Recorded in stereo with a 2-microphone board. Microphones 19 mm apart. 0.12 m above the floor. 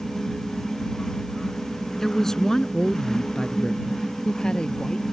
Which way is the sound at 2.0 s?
20° left (ahead or behind).